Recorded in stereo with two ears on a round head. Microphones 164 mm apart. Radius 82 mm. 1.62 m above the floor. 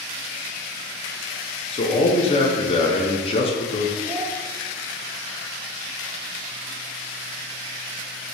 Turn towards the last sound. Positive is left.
turn(degrees=-20)  # may be behind; listen again after turning